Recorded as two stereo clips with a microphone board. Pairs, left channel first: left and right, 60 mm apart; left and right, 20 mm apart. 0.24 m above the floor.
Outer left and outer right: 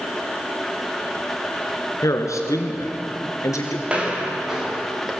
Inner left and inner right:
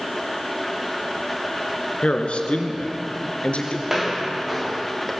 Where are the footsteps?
15° right (ahead or behind), 5 m; by 5.1 s centre (ahead or behind), 5.5 m.